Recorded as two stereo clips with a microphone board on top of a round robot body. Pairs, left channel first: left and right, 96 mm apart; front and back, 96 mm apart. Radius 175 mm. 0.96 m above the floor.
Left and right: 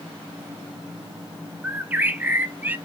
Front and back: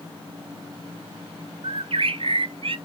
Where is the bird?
160° right, 0.6 m.